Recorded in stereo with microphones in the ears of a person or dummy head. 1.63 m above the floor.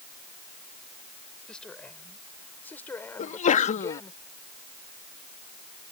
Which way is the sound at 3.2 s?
35° left (ahead or behind).